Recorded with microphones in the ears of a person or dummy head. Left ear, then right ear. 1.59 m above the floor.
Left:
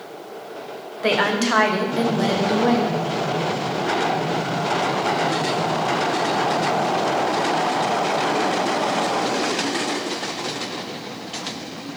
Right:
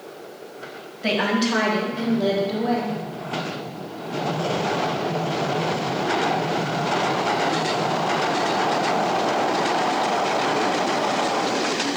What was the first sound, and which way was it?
A woman speaking, 30° left (ahead or behind).